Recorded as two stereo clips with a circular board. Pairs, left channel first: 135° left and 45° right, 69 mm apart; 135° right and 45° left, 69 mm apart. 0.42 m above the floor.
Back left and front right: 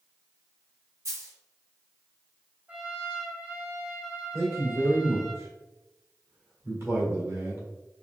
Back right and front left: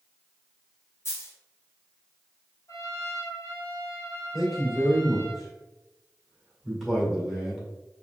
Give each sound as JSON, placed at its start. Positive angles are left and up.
{"t": 1.1, "sound": "a dropped coin", "azimuth_deg": -85, "distance_m": 1.5}
{"t": 2.7, "sound": "a trumpet", "azimuth_deg": -110, "distance_m": 1.2}
{"t": 4.3, "sound": "a man speaking", "azimuth_deg": -40, "distance_m": 1.8}